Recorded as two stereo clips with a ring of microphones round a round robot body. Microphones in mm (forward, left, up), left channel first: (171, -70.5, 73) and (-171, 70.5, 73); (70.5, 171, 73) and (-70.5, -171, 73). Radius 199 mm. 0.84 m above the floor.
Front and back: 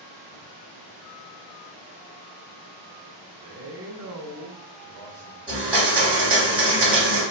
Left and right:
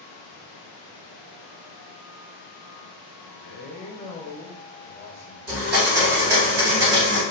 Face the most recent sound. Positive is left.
turn(degrees=-125)